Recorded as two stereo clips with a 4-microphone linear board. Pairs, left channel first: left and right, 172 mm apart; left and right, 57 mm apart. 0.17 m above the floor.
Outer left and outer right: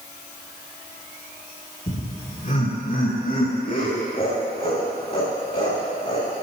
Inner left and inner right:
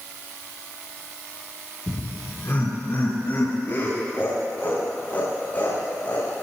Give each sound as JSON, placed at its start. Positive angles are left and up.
{"t": 1.9, "sound": "laughter", "side_deg": 45, "distance_m": 2.5}